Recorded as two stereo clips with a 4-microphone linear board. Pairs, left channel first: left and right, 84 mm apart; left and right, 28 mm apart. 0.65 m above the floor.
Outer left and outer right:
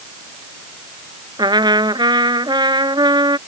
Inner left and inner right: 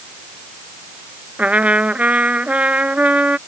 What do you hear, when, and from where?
1.4 s a trumpet: 60° right (ahead or behind)